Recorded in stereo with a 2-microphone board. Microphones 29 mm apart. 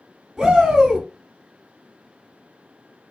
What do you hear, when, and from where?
0.4 s a shout: 15° right (ahead or behind), 1.3 m